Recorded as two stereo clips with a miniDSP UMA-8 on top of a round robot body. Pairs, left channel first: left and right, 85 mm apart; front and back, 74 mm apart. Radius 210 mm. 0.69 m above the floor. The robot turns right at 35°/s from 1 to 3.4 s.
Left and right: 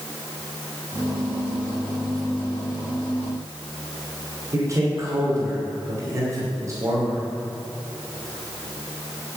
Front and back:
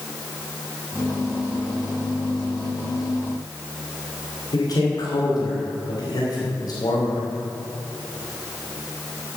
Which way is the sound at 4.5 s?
35° right.